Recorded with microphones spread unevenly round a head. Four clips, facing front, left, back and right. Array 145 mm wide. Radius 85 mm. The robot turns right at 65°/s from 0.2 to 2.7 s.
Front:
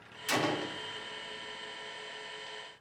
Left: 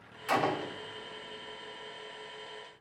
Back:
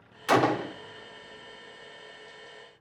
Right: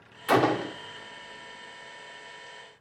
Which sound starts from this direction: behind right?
A gunshot, at 0.3 s.